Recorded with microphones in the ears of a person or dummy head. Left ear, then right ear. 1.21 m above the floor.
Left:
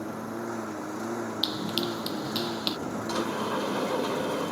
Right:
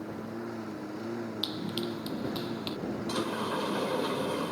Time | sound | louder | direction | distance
0.0 | a lawn mower | left 4 dB | 35° left (ahead or behind) | ?
1.4 | running footsteps | left 6 dB | 20° left (ahead or behind) | ?
3.1 | a sliding door | left 3 dB | 5° left (ahead or behind) | ?